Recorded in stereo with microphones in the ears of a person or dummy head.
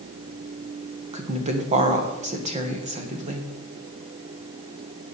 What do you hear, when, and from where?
1.1 s a woman speaking: 35° right (ahead or behind), 1.5 m